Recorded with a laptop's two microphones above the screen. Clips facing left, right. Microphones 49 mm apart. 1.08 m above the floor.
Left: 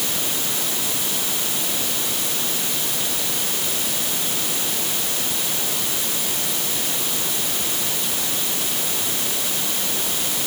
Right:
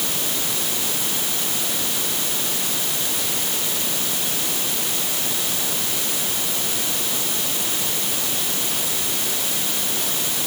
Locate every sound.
Only background noise.